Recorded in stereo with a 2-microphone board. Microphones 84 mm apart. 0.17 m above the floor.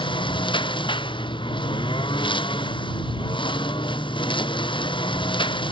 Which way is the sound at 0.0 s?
75° left (ahead or behind).